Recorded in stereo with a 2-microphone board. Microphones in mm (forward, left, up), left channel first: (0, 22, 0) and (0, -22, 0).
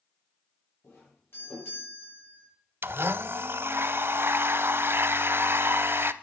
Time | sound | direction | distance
0.8 | a doorbell | 60° left (ahead or behind) | 9.5 m
2.8 | a blender | 55° right (ahead or behind) | 0.6 m